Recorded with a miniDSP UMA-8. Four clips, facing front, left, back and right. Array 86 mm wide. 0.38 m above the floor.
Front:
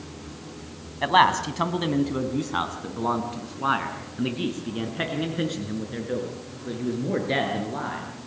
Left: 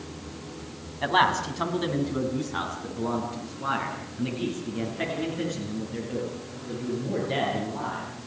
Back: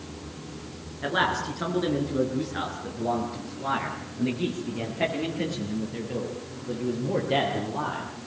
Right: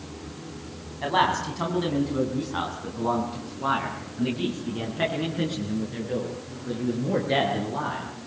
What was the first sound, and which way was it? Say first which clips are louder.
A man speaking: even, front 7 dB; 5° left.